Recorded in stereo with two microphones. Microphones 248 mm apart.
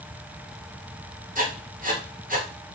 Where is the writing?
35° right (ahead or behind), 1.0 m.